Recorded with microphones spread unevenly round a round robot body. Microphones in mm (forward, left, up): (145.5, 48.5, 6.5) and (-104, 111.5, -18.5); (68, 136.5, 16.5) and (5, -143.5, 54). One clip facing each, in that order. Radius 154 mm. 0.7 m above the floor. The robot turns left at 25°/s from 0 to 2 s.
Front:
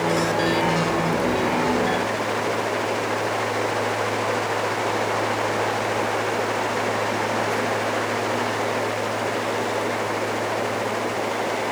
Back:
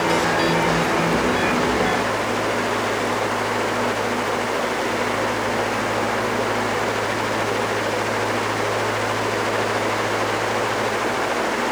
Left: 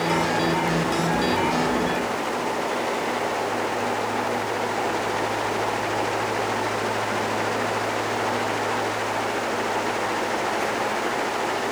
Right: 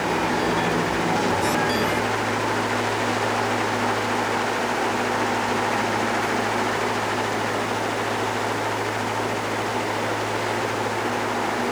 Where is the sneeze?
I don't hear a sneeze.